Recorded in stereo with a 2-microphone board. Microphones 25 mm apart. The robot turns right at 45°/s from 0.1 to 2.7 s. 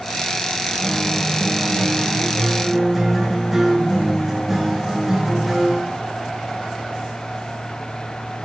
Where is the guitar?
25° left (ahead or behind), 1.1 m; by 5.9 s 5° right (ahead or behind), 1.1 m.